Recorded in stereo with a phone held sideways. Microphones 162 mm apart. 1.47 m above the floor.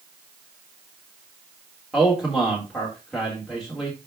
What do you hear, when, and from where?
1.9 s a man speaking: centre (ahead or behind), 2.5 m